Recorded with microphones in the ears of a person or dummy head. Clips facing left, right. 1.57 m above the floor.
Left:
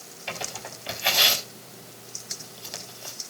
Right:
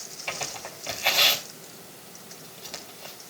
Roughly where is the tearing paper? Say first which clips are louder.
Even; centre.